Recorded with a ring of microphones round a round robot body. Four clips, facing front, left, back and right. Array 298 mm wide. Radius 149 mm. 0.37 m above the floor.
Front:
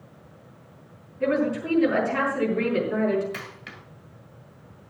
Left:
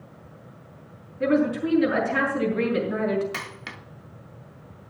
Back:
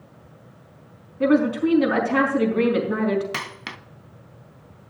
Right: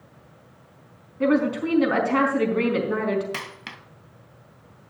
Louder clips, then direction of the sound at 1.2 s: Right 1 dB, back 5 dB; 125° right.